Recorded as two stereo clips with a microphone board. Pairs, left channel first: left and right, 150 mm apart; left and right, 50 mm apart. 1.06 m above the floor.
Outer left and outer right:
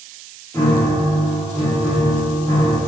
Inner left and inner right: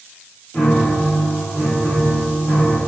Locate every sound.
0.5 s a piano: 20° left (ahead or behind), 1.7 m